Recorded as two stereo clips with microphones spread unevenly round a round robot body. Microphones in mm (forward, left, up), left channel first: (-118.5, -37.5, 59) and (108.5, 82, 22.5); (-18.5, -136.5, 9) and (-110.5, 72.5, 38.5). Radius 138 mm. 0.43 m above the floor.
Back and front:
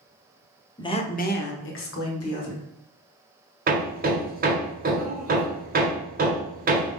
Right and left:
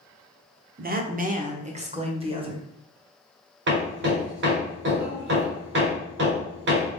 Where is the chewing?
No chewing in this recording.